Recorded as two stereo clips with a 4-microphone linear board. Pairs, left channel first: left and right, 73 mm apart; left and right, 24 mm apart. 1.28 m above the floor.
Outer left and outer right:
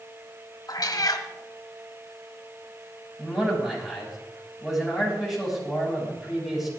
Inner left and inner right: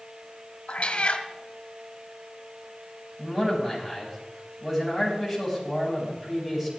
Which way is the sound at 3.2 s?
5° right (ahead or behind).